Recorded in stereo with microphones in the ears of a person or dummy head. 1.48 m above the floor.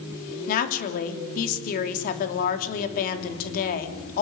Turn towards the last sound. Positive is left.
turn(degrees=55)  # may be behind; listen again after turning